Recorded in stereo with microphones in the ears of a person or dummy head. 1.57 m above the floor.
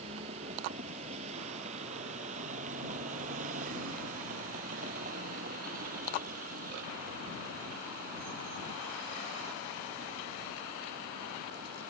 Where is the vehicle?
25° right (ahead or behind); by 11.9 s 45° right (ahead or behind).